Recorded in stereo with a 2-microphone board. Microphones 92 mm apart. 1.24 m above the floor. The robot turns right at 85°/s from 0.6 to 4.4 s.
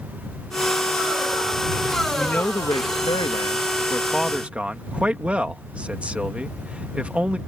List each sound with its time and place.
2.1 s a man speaking: 5° left; by 7.4 s 165° right